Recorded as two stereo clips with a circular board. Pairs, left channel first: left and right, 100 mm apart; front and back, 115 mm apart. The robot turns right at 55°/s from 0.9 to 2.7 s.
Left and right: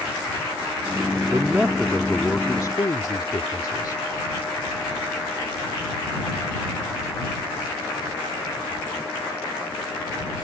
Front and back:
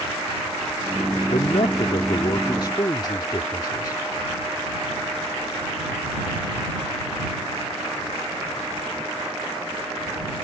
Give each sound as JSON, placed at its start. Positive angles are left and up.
{"t": 1.3, "sound": "a man speaking", "azimuth_deg": -35}